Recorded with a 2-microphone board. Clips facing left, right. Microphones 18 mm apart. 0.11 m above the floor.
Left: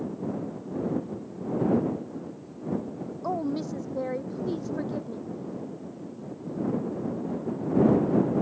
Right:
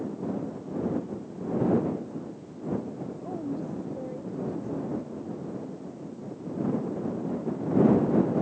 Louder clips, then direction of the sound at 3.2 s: Left 5 dB; 60° left (ahead or behind).